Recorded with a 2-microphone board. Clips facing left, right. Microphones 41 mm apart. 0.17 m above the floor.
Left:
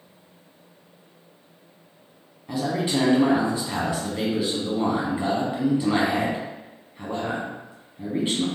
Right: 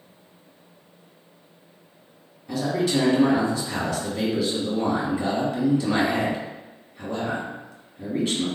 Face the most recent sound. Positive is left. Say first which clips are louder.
# right 1 dB
turn(degrees=25)  # may be behind; listen again after turning